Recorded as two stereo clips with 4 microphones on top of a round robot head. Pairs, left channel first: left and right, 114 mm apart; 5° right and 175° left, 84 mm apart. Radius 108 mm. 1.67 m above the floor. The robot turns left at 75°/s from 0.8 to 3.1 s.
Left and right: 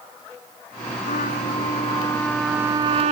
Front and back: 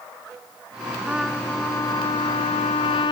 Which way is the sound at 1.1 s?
100° left.